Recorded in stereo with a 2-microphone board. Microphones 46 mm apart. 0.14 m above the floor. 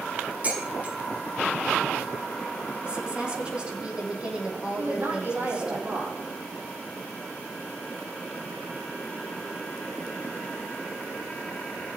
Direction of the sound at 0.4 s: 35° right (ahead or behind).